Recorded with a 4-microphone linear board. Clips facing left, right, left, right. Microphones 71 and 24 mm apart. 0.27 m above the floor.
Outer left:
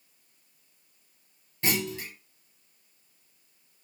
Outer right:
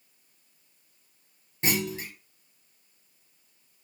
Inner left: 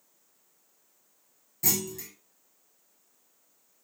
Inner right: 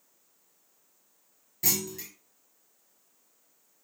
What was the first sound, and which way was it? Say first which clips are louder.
A clunk: outer right 1 dB, even; 20° right (ahead or behind).